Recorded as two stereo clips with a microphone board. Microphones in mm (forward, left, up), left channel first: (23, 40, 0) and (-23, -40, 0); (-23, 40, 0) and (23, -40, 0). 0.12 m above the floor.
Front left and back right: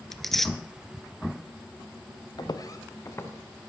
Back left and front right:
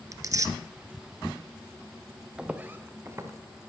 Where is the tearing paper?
25° right, 0.5 m.